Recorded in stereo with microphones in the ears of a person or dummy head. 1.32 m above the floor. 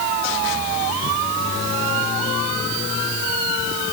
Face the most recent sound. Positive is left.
No sound to turn to.